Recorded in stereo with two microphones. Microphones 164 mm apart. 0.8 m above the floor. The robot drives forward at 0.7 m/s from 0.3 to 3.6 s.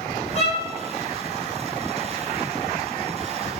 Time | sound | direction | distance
0.3 | a violin | 40° left (ahead or behind) | 3.5 m